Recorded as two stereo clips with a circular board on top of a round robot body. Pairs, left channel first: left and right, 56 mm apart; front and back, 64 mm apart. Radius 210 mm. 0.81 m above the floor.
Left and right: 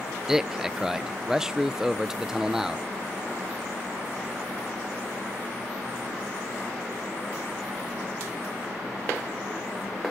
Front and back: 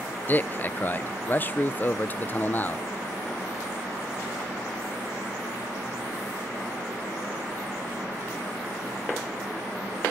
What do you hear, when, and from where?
0.3 s a man speaking: 20° right, 0.7 m